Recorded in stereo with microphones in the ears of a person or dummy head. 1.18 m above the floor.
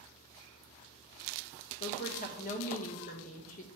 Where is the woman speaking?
45° left (ahead or behind), 1.3 m.